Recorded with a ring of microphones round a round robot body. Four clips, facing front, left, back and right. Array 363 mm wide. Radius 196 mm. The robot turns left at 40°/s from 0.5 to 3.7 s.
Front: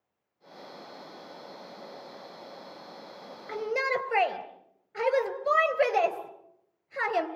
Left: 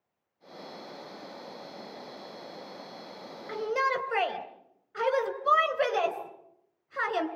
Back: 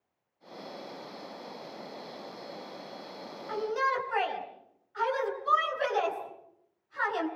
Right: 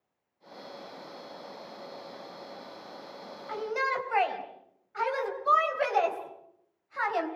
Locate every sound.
3.5 s a shout: 45° left, 3.5 m; by 7.3 s 35° left, 3.5 m